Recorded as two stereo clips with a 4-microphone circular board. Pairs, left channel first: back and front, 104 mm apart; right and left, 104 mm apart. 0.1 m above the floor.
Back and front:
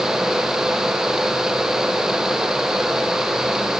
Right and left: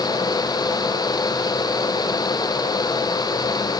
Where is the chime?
No chime in this recording.